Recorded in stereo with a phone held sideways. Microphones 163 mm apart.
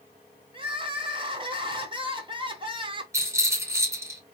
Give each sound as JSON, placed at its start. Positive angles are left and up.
{"t": 0.5, "sound": "crying", "side_deg": -30, "distance_m": 1.0}
{"t": 3.1, "sound": "a rattle", "side_deg": -15, "distance_m": 2.5}